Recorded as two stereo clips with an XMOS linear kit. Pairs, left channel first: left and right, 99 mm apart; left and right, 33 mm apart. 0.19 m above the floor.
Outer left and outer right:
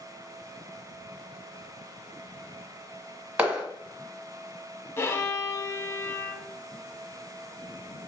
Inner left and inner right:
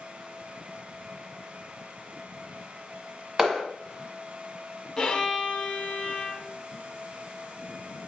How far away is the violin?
About 0.6 m.